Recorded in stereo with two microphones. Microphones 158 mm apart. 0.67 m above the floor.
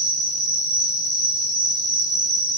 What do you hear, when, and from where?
0.0 s an insect: 25° left (ahead or behind), 2 m